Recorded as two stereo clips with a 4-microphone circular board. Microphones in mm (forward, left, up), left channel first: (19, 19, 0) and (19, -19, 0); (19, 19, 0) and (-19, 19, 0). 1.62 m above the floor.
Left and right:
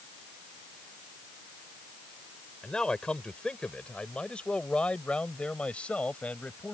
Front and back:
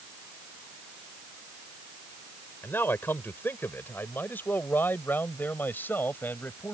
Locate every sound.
2.6 s a man speaking: 20° left; by 6.8 s 35° left